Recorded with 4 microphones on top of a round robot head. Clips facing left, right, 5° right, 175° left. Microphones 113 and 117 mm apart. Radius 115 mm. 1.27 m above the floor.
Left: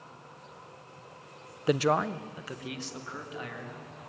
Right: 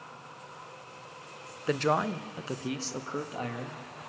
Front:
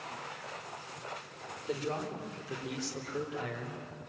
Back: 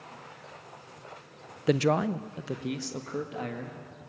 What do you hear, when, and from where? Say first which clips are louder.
1.7 s a man speaking: left 1 dB, back 11 dB; 160° left, 0.7 m; by 4.0 s 130° right, 2.5 m